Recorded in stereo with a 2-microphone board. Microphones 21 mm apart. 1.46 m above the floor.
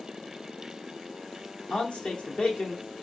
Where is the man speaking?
75° left (ahead or behind), 1.1 m.